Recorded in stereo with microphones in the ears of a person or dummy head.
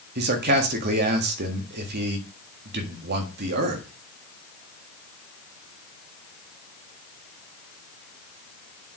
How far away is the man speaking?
About 1.6 m.